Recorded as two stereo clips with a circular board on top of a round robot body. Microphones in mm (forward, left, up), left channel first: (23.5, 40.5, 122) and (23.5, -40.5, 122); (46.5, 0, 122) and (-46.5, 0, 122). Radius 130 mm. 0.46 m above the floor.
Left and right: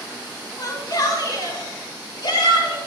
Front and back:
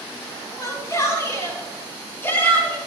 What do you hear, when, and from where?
0.6 s a shout: 50° left, 6 m; by 2.8 s 70° left, 5 m